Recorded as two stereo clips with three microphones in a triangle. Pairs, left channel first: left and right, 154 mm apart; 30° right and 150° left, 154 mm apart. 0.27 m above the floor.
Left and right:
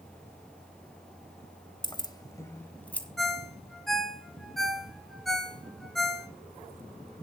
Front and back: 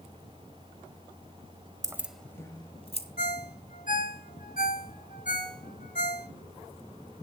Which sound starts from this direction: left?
Keys jangling, at 1.8 s.